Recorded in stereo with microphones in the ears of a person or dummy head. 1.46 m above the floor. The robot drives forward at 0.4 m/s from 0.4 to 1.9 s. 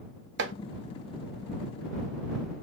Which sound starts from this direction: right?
Chopping, at 0.4 s.